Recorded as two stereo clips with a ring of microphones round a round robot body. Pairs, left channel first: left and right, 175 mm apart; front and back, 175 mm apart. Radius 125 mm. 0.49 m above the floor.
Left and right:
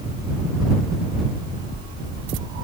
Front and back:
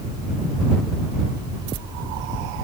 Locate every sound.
Only background noise.